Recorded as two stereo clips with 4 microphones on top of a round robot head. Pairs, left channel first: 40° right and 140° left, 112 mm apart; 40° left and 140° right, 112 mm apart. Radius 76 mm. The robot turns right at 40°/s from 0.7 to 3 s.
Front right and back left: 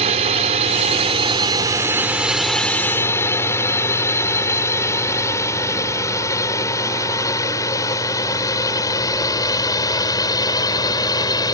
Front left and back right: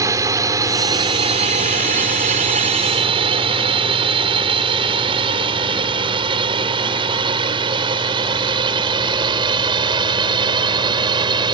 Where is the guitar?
I don't hear a guitar.